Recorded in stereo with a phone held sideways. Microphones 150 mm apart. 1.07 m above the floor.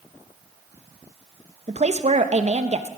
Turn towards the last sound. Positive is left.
turn(degrees=-50)  # may be behind; listen again after turning